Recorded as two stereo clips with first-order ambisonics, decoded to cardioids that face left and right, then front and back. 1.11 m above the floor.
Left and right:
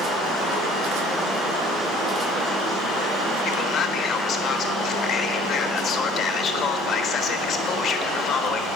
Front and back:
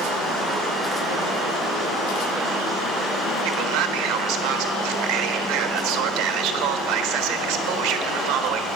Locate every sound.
3.5 s a man speaking: 150° left, 1.4 m